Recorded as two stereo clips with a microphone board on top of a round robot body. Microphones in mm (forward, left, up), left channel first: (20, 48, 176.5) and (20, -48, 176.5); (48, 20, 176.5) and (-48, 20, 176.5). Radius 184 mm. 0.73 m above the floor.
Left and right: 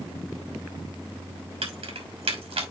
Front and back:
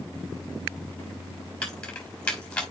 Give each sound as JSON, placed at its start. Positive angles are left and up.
{"t": 1.6, "sound": "keys jangling", "azimuth_deg": -80, "distance_m": 3.0}